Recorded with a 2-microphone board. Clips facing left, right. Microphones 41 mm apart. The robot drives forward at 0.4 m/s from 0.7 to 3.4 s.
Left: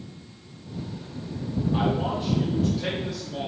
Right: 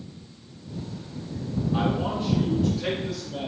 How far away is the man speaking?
About 1.9 m.